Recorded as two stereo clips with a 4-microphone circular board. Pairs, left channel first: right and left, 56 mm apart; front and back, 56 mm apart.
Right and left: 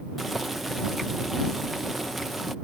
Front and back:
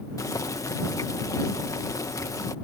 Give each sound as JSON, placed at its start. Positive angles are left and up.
{"t": 0.2, "sound": "boiling", "azimuth_deg": 0}